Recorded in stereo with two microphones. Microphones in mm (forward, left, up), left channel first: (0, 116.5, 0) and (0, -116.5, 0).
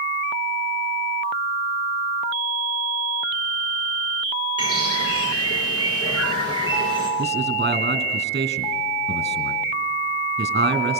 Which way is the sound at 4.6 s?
90° left.